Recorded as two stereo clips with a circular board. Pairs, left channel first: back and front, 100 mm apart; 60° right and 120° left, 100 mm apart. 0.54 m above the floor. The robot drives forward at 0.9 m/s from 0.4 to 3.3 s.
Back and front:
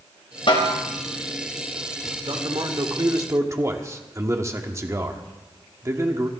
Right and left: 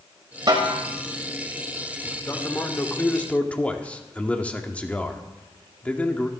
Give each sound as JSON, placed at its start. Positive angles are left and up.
{"t": 0.5, "sound": "a snare drum", "azimuth_deg": 160, "distance_m": 2.5}
{"t": 2.3, "sound": "a man speaking", "azimuth_deg": 0, "distance_m": 1.9}